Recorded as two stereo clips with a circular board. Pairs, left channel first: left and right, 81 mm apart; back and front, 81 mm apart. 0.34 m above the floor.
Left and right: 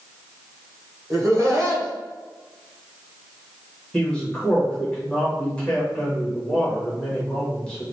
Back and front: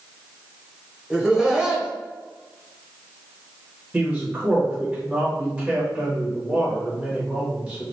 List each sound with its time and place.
1.1 s laughter: 75° right, 1.3 m
3.9 s a man speaking: 40° left, 1.4 m